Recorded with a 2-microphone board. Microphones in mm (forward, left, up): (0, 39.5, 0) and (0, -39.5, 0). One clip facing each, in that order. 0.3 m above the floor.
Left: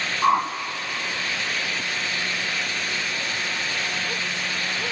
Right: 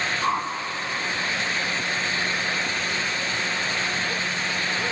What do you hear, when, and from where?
0.2 s a whoosh: 30° left (ahead or behind), 0.6 m